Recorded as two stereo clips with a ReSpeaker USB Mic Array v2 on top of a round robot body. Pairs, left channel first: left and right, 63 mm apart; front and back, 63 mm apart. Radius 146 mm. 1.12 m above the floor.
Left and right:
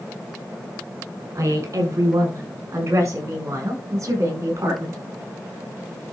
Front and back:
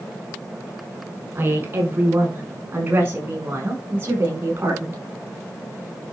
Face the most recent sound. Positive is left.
turn(degrees=-135)